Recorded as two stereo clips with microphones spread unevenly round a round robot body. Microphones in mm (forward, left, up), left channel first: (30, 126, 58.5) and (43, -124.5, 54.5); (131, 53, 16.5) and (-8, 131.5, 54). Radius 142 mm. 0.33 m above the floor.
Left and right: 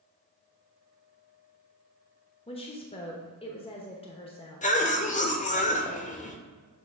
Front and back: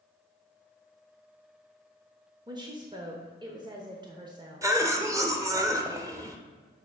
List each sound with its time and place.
2.5 s a woman speaking: 95° left, 0.9 m
4.6 s a cough: 75° left, 1.0 m